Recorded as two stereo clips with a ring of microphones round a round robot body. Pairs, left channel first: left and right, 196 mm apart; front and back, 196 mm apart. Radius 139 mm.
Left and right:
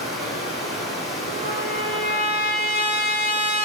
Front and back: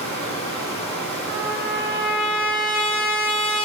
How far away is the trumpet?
About 4.5 m.